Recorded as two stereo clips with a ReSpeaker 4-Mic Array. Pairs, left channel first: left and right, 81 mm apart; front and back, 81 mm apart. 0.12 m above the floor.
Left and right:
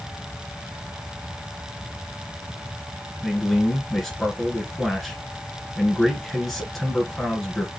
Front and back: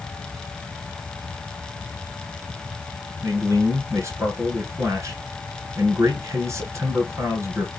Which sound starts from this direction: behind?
A man speaking, at 3.2 s.